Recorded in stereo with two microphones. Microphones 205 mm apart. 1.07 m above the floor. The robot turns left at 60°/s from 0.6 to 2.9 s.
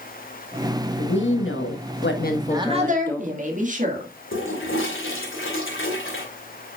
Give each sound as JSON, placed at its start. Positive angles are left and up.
{"t": 1.0, "sound": "a woman speaking", "azimuth_deg": 125, "distance_m": 1.3}
{"t": 2.3, "sound": "a woman speaking", "azimuth_deg": -5, "distance_m": 1.8}
{"t": 4.3, "sound": "a toilet flushing", "side_deg": 75, "distance_m": 2.5}